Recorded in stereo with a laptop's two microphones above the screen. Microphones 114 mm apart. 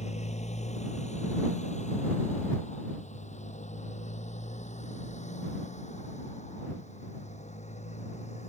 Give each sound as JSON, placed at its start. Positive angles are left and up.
{"t": 0.0, "sound": "a motorcycle", "side_deg": 75}